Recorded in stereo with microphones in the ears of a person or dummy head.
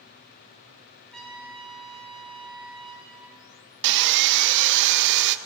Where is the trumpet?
Centre (ahead or behind), 1.5 m.